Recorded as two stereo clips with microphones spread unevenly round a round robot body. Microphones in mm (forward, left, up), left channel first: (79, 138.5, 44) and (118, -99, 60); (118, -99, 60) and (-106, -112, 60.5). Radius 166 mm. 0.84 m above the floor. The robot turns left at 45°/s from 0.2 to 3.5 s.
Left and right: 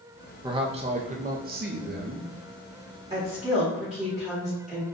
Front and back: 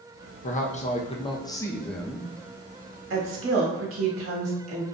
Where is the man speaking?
10° right, 0.6 m; by 2.3 s 95° right, 0.6 m.